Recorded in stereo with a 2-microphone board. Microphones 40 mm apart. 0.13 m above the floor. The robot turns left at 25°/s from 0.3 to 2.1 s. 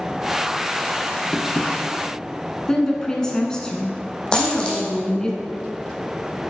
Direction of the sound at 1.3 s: 10° left (ahead or behind).